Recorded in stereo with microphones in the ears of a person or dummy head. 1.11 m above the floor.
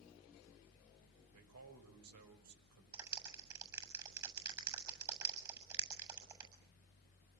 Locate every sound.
1.3 s a man speaking: 80° right, 6 m
2.9 s a clap: 20° right (ahead or behind), 7.5 m